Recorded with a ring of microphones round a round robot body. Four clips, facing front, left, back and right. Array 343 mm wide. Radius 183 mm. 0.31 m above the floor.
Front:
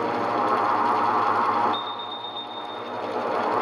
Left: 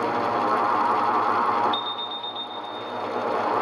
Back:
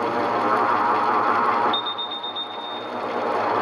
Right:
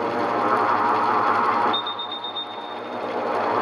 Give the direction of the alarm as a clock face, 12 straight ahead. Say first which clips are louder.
Right 1 dB, back 2 dB; 8 o'clock.